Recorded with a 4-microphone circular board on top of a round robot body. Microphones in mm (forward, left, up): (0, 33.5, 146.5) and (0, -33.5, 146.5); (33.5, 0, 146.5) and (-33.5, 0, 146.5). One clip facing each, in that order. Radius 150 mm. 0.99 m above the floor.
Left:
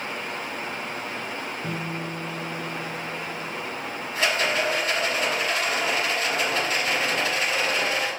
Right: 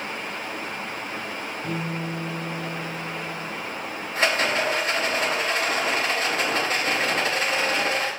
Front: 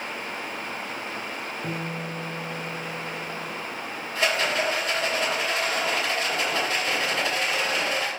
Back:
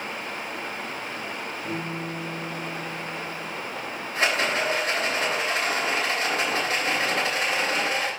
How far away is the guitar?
About 0.9 m.